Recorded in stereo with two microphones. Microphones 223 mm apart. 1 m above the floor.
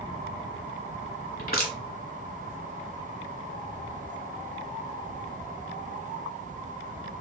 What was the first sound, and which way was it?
Crushing, 40° left (ahead or behind).